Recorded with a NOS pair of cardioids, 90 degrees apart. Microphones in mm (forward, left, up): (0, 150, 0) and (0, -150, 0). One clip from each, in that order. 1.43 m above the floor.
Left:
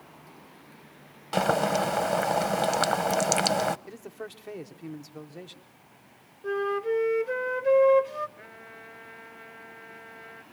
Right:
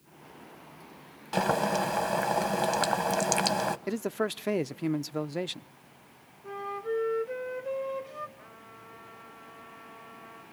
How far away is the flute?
About 1.1 m.